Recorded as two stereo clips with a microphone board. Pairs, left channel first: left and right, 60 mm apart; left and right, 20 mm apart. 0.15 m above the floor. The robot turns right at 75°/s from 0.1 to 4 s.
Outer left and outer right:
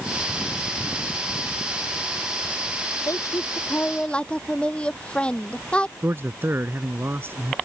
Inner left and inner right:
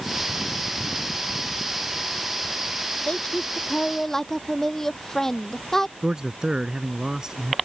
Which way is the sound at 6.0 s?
40° right (ahead or behind).